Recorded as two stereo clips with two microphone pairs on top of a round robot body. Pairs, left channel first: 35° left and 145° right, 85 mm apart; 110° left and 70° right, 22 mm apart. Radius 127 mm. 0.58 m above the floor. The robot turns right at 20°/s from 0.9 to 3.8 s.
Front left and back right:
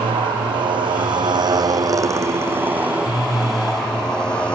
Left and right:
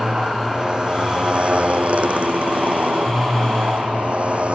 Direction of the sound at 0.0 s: 125° right.